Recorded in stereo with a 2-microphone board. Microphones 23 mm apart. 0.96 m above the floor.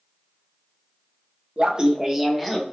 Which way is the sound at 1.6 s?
45° right (ahead or behind).